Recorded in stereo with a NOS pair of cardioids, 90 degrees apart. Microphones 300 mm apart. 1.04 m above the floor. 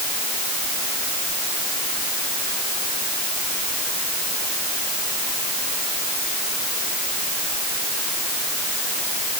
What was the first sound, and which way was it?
Only background noise.